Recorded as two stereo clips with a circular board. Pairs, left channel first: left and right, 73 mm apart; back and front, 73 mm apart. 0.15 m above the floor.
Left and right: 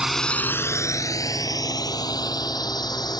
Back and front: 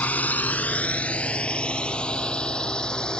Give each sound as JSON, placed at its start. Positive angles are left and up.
{"t": 0.0, "sound": "a drone", "azimuth_deg": -160}